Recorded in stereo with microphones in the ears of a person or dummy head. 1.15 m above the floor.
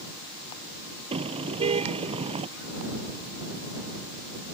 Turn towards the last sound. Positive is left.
turn(degrees=-30)  # may be behind; listen again after turning